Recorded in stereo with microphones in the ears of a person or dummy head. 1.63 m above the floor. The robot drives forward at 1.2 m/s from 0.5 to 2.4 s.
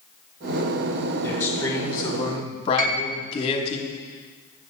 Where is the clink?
No clink in this recording.